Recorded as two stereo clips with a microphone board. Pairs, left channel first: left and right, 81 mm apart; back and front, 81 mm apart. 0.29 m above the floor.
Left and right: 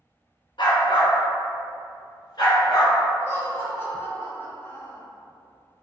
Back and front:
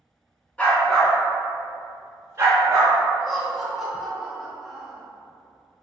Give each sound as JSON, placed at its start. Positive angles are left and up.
{"t": 0.6, "sound": "a dog barking", "azimuth_deg": 110, "distance_m": 1.2}
{"t": 3.2, "sound": "laughter", "azimuth_deg": 90, "distance_m": 1.0}